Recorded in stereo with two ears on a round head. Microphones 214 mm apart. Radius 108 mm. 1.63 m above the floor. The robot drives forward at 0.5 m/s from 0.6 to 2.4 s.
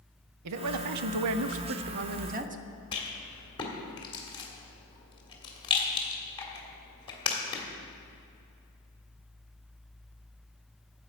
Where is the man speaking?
70° right (ahead or behind), 0.6 m; by 2.6 s 35° right (ahead or behind), 0.9 m.